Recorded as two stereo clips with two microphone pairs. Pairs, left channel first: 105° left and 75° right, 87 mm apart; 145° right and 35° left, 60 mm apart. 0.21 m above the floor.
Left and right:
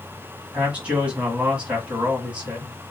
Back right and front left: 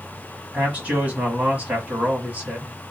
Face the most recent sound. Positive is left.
turn(degrees=-10)